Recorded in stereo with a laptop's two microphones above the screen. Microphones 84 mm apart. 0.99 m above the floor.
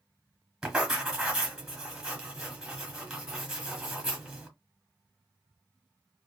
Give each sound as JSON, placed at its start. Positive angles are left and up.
{"t": 0.6, "sound": "writing", "side_deg": -5, "distance_m": 1.3}